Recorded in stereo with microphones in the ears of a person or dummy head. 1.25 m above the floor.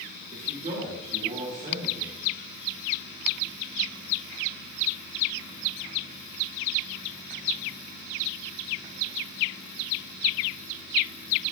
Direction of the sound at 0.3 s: 40° right (ahead or behind).